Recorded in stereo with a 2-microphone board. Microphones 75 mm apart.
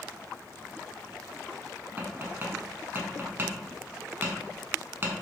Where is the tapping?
30° right (ahead or behind), 0.7 m.